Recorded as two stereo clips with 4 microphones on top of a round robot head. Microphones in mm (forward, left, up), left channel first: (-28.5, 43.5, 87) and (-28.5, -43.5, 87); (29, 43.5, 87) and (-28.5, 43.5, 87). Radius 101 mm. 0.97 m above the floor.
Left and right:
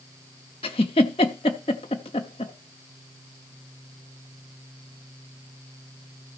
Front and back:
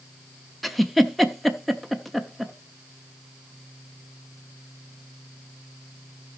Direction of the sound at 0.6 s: 85° left.